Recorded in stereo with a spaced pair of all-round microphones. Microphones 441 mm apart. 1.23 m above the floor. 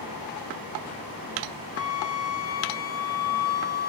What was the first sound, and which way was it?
A flute, 55° left (ahead or behind).